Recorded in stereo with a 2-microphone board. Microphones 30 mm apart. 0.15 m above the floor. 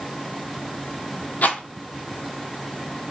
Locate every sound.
1.4 s a rattle: 65° left (ahead or behind), 0.7 m